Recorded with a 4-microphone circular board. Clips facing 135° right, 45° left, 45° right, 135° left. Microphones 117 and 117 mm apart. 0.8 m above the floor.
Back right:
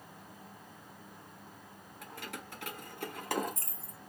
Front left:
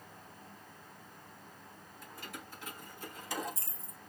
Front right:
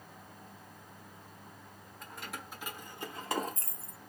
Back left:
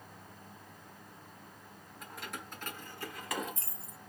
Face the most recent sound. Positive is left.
turn(degrees=-75)